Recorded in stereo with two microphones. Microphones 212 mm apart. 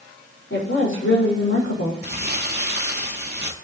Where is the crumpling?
50° right (ahead or behind), 1.9 m.